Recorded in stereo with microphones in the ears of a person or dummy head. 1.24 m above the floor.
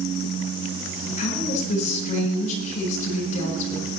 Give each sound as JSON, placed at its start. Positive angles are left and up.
{"t": 1.2, "sound": "a woman speaking", "side_deg": 45, "distance_m": 9.5}